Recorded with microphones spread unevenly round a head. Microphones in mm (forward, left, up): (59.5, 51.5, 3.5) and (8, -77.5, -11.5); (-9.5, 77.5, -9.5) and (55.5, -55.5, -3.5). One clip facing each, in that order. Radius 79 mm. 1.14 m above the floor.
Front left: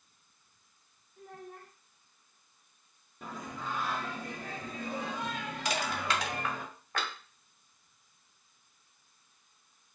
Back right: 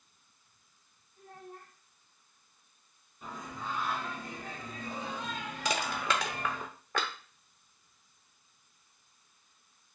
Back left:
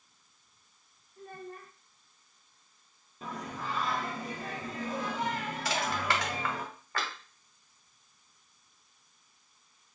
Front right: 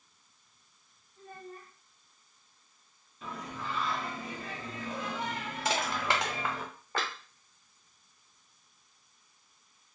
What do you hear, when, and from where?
1.2 s a child speaking: 80° left, 0.6 m
3.2 s singing: 70° left, 0.7 m
5.7 s crushing: 135° right, 0.5 m